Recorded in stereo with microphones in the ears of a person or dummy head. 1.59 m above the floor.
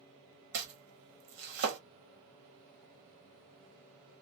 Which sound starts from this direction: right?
Chopping, at 0.5 s.